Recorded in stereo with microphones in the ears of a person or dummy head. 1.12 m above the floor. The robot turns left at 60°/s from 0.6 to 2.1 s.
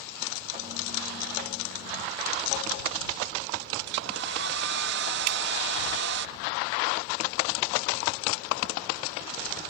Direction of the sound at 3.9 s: 60° right (ahead or behind).